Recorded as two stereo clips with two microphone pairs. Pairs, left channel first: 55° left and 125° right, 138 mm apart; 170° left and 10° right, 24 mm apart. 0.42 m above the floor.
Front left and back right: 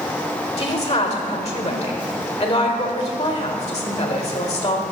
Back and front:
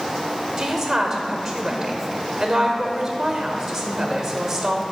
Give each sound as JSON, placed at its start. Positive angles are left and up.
{"t": 0.6, "sound": "a woman speaking", "azimuth_deg": 55, "distance_m": 1.2}